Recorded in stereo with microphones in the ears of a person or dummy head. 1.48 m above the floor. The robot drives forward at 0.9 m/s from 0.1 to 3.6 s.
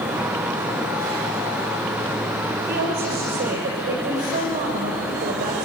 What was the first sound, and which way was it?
A woman speaking, 45° right (ahead or behind).